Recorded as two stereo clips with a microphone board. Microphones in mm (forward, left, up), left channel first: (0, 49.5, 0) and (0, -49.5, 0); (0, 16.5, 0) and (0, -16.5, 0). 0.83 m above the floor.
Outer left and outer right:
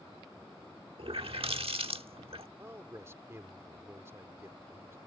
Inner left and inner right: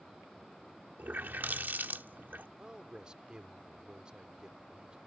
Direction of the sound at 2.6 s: 25° right (ahead or behind).